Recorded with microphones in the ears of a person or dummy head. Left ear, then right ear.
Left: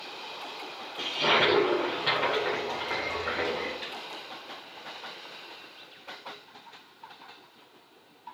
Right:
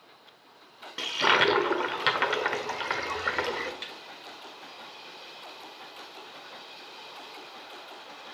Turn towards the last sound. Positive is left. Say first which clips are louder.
# left 2 dB
turn(degrees=-35)  # may be behind; listen again after turning